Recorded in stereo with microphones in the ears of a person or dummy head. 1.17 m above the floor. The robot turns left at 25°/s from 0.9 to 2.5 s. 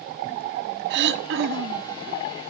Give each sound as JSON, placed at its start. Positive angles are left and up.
{"t": 0.9, "sound": "throat clearing", "side_deg": -65, "distance_m": 1.4}